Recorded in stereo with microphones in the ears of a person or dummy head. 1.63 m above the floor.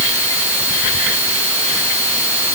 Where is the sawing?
I don't hear sawing.